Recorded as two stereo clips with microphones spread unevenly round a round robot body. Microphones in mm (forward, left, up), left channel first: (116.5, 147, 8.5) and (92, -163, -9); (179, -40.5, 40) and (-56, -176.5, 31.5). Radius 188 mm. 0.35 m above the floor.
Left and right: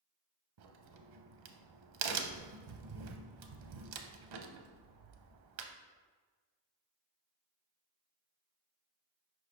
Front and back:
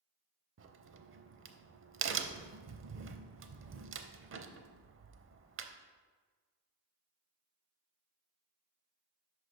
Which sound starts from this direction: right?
A crack, at 0.6 s.